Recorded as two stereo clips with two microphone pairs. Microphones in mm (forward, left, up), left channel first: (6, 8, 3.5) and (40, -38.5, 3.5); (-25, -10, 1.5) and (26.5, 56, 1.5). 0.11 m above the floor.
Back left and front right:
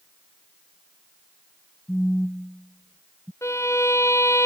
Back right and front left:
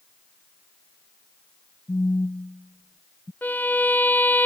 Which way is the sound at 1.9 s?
160° right.